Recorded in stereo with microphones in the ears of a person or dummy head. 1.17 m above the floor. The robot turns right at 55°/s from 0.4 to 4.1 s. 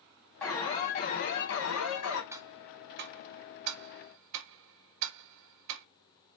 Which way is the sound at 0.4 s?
10° left.